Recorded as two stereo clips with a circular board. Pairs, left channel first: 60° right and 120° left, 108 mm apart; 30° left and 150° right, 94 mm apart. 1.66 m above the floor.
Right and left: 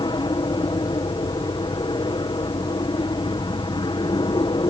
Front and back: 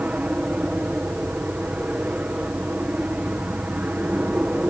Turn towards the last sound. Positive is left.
turn(degrees=-80)